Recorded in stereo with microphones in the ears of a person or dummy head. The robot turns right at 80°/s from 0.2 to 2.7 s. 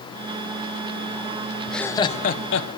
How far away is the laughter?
About 1.2 m.